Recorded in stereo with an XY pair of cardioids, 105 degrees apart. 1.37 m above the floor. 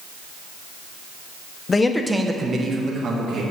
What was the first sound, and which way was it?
A man speaking, 35° left.